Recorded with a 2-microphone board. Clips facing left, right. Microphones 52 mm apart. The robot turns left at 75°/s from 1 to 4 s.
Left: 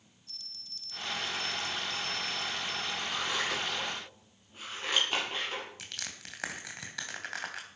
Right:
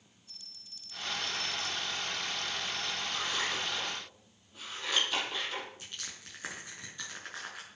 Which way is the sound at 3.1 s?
75° left (ahead or behind).